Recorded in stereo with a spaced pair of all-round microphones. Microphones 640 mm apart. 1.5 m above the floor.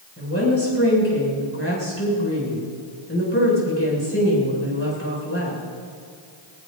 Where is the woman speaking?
20° left (ahead or behind), 6.5 m.